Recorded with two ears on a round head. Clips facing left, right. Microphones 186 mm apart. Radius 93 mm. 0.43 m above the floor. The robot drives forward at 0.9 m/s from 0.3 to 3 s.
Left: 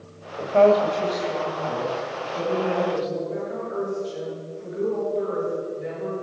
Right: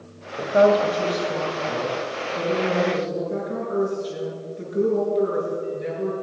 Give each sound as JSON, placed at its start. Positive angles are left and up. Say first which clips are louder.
{"t": 0.4, "sound": "a woman speaking", "louder": "even", "side_deg": -15, "distance_m": 2.0}
{"t": 3.3, "sound": "a woman speaking", "louder": "right 3 dB", "side_deg": -65, "distance_m": 6.0}